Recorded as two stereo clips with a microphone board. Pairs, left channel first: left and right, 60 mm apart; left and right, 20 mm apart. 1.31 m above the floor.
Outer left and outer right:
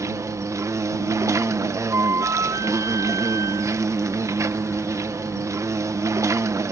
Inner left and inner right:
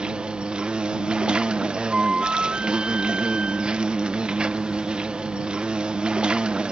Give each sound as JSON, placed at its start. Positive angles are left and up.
{"t": 0.0, "sound": "an insect", "side_deg": -55}
{"t": 1.9, "sound": "a flute", "side_deg": -65}